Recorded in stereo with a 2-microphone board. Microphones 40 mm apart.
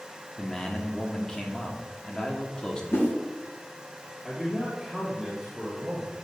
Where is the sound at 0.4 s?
20° left (ahead or behind), 1.3 m.